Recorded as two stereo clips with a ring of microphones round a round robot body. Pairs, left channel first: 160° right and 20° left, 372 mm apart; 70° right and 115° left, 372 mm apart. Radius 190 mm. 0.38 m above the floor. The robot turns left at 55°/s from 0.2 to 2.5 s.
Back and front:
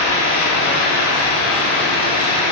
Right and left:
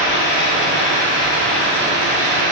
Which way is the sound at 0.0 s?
100° right.